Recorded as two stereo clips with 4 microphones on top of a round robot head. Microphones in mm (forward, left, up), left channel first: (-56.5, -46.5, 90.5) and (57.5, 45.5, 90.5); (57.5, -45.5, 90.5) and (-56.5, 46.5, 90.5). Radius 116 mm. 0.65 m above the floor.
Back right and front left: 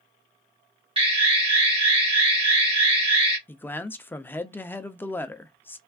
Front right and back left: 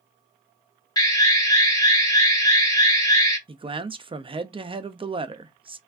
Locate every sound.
1.0 s an alarm: 15° left, 2 m
3.5 s a man speaking: 150° left, 0.7 m